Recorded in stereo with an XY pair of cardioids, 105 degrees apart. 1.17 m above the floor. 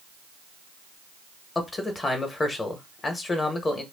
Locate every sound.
1.6 s a man speaking: 35° left, 0.9 m